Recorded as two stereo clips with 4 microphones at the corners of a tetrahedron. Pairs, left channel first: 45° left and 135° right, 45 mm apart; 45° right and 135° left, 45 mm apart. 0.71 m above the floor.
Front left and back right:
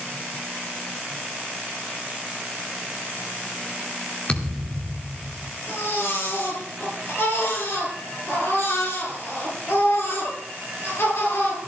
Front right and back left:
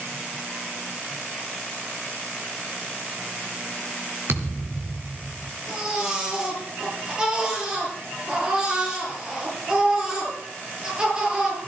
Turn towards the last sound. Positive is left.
turn(degrees=65)